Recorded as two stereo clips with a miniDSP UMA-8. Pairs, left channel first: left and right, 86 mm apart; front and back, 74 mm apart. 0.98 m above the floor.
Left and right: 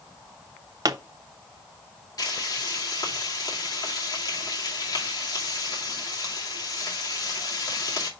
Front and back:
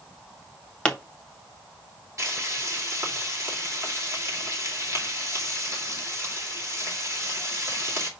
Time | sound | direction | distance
0.8 | a pop | 75° right | 0.7 m
2.2 | frying | 135° left | 2 m